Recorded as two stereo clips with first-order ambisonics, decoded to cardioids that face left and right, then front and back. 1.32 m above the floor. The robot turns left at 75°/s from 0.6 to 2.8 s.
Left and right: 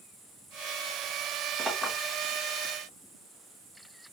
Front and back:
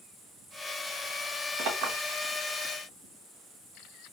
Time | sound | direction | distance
1.6 | a clink | 155° right | 2.5 m